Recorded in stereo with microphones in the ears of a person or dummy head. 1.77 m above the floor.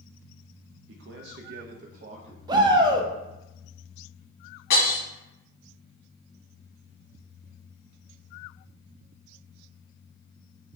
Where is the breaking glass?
60° left (ahead or behind), 1.9 m.